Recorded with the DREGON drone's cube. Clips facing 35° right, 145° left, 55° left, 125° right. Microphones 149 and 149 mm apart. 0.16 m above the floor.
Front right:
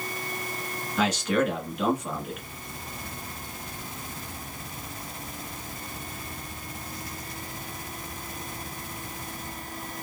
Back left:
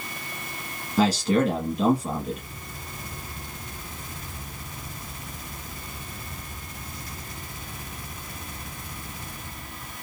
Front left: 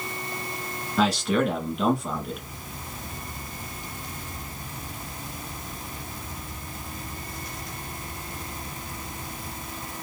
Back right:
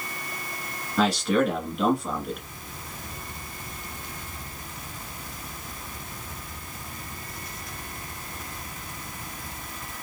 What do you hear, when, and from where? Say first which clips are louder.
1.0 s a man speaking: back left 4 dB, back right 1 dB; 145° left, 1.5 m